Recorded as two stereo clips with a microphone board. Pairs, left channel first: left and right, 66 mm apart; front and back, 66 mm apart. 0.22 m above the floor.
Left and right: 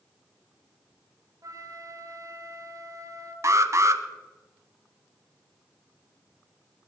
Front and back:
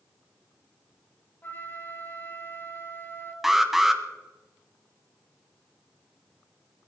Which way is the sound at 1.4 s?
60° right.